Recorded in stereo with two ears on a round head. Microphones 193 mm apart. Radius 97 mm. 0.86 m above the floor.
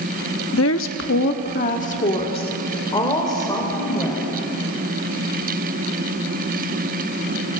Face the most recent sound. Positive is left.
turn(degrees=15)  # may be behind; listen again after turning